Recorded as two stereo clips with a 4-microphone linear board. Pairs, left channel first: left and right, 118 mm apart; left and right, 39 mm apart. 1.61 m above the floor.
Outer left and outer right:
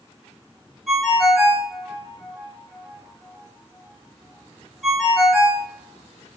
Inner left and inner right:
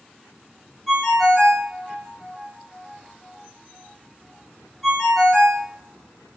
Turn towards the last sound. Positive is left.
turn(degrees=0)  # may be behind; listen again after turning